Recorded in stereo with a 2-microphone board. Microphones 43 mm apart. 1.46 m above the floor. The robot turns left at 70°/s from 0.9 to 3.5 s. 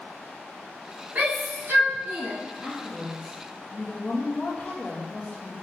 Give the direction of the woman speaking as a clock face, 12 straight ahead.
5 o'clock.